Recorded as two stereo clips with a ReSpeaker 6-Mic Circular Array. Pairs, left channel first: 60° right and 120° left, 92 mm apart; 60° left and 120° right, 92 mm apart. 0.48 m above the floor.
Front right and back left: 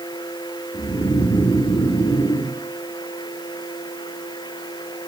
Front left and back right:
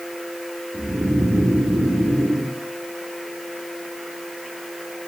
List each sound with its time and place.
0.7 s snoring: 70° right, 4.5 m